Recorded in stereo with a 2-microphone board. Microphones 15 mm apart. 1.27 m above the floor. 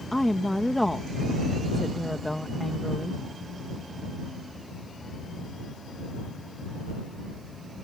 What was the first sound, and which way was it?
A woman speaking, 20° left (ahead or behind).